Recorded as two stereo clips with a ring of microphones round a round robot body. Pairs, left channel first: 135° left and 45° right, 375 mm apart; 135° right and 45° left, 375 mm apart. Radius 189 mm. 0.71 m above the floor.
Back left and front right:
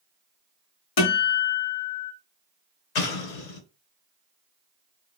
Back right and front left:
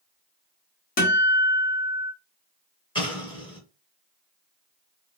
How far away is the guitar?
About 1.5 m.